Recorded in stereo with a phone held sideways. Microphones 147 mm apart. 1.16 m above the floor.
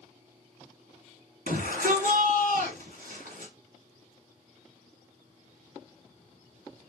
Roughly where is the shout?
Right.